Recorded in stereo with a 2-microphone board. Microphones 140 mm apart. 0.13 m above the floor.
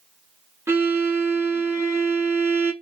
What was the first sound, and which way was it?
A violin, 20° right (ahead or behind).